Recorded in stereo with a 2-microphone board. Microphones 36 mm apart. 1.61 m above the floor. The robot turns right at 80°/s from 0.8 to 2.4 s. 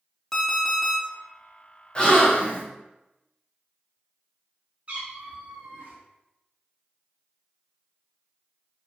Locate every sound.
0.3 s an alarm clock: 10° left (ahead or behind), 1.1 m; by 1.0 s centre (ahead or behind), 1.1 m
1.9 s a gasp: 60° left, 0.7 m; by 2.6 s 95° left, 0.7 m
4.9 s a cat meowing: 35° right (ahead or behind), 1.2 m